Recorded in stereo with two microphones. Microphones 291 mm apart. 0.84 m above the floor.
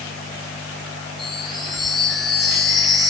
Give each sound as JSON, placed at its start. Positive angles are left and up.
{"t": 1.2, "sound": "a chime", "side_deg": 0, "distance_m": 9.5}